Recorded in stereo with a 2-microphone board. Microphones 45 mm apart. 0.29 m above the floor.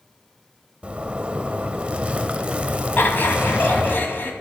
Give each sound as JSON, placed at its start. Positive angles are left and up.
{"t": 0.8, "sound": "a zipper", "side_deg": -25, "distance_m": 0.8}
{"t": 3.0, "sound": "laughter", "side_deg": 50, "distance_m": 2.0}